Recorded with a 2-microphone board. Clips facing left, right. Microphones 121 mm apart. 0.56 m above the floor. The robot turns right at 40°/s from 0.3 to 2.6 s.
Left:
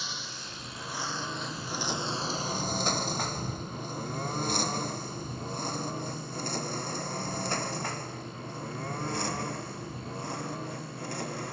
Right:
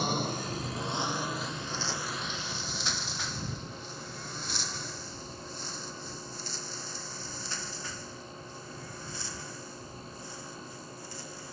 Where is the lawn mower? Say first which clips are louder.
Right 11 dB; 55° right (ahead or behind); by 11.5 s 65° left (ahead or behind).